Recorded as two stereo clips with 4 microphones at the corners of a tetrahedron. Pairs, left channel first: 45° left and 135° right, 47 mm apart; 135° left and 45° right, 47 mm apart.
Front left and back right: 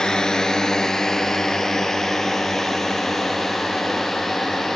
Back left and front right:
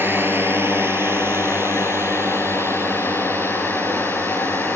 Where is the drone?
25° right; by 4.8 s 40° right.